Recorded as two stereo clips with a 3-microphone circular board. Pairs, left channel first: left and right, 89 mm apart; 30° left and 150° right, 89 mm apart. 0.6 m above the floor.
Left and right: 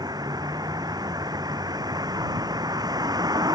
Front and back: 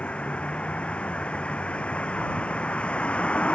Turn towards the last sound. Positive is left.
turn(degrees=-50)